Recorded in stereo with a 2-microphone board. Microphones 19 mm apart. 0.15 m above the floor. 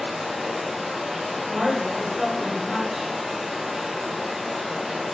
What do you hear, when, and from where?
0.0 s running water: 20° right (ahead or behind), 1.9 m
1.5 s a woman speaking: 15° right (ahead or behind), 1.2 m